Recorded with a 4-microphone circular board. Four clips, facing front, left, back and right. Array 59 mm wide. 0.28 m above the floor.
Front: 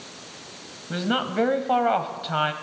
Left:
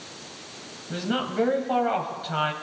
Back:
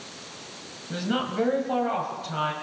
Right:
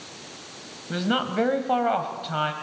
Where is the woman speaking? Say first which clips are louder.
Right 3 dB, front 3 dB; 50° right, 1.6 m; by 2.5 s straight ahead, 1.6 m.